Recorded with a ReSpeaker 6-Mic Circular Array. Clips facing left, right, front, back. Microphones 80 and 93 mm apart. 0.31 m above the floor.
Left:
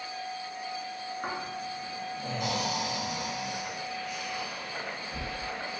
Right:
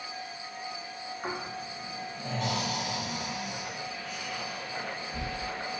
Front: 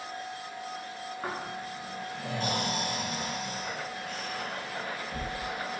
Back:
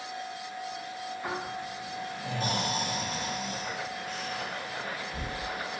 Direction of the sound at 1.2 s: 15° left.